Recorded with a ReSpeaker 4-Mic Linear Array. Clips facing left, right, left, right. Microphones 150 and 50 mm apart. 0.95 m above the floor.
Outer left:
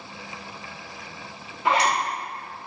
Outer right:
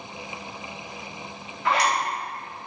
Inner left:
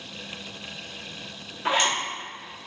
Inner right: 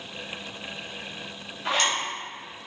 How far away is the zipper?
About 1.5 m.